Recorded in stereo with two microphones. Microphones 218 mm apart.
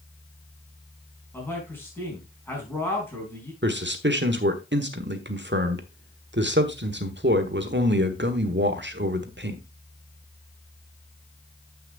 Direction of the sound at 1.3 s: 10° left (ahead or behind).